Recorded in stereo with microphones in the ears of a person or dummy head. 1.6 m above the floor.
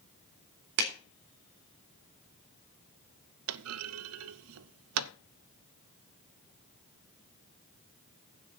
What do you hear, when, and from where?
0.8 s a clap: 65° right (ahead or behind), 3.5 m
3.5 s a clunk: 85° right, 0.7 m